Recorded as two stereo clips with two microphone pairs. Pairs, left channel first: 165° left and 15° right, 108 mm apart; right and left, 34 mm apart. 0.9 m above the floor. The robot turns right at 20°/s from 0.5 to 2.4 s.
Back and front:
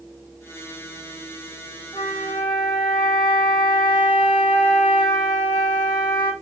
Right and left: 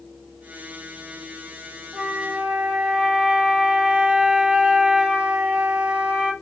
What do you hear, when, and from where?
1.9 s a flute: 125° left, 1.4 m; by 6.3 s 135° left, 1.4 m